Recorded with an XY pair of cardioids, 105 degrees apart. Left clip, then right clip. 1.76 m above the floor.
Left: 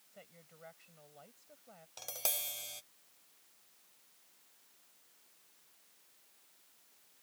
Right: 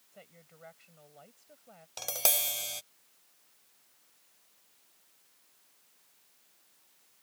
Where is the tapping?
50° right.